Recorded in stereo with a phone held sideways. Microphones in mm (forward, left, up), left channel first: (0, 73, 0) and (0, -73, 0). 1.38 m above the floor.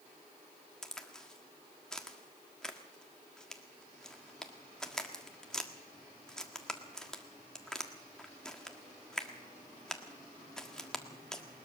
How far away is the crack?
About 1.6 m.